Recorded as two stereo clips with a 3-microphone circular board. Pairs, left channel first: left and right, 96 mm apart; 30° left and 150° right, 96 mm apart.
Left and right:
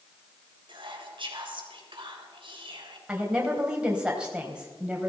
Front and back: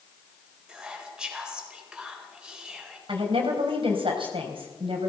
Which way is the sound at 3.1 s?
170° right.